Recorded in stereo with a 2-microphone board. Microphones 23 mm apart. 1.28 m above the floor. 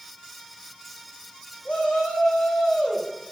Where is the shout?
65° left (ahead or behind), 8.5 m; by 3.3 s 50° left (ahead or behind), 9.5 m.